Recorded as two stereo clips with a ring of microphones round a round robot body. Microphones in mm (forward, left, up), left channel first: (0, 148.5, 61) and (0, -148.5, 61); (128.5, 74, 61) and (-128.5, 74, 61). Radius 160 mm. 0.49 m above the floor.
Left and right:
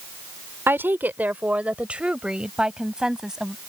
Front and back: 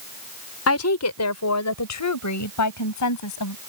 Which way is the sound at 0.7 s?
10° right.